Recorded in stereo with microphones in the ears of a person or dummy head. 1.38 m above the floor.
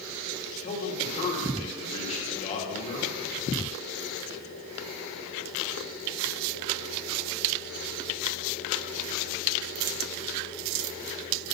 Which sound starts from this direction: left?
A man speaking, at 0.6 s.